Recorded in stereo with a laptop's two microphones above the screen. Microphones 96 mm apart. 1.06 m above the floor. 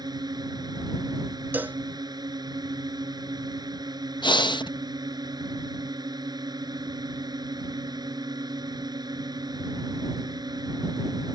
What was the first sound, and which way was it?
A drone, 45° right (ahead or behind).